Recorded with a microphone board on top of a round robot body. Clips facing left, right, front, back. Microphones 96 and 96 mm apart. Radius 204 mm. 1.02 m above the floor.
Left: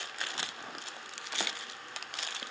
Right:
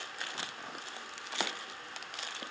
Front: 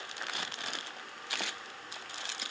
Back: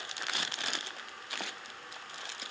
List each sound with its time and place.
Only background noise.